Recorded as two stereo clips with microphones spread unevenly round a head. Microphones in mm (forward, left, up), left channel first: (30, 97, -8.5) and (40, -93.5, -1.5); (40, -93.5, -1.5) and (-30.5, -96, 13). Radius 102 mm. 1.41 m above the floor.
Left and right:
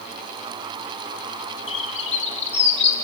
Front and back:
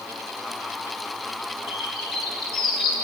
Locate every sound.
1.7 s a bird: 35° left, 2.5 m